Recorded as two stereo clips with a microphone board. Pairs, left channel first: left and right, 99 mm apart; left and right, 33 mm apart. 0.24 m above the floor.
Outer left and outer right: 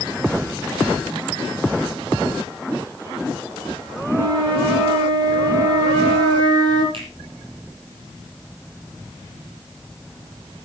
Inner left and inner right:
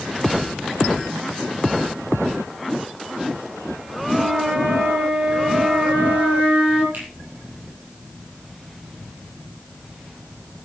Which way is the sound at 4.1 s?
50° right (ahead or behind).